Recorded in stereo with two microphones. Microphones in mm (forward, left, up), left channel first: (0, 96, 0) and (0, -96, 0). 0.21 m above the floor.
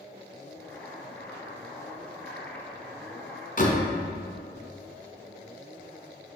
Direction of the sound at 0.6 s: 10° left (ahead or behind).